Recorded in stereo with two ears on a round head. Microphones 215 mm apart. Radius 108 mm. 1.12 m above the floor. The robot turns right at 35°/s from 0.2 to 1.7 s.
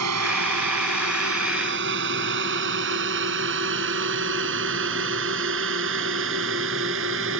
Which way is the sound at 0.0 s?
80° right.